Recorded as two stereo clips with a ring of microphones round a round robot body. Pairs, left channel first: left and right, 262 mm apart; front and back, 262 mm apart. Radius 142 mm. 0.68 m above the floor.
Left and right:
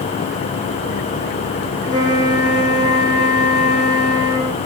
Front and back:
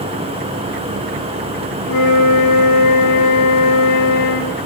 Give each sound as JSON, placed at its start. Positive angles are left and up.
{"t": 1.9, "sound": "a flute", "azimuth_deg": -15, "distance_m": 5.5}